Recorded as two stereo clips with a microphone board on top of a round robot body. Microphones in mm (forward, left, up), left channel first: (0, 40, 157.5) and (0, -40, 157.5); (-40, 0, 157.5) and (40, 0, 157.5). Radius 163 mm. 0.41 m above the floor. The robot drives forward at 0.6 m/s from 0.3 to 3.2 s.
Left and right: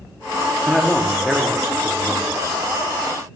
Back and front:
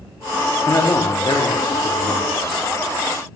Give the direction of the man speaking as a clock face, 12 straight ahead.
6 o'clock.